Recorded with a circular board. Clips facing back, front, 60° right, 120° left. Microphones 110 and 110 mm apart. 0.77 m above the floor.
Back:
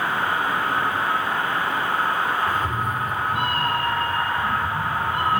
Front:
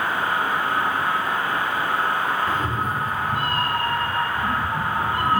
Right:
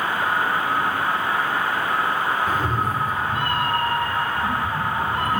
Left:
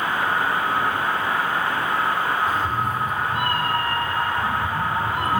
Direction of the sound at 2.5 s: 55° right.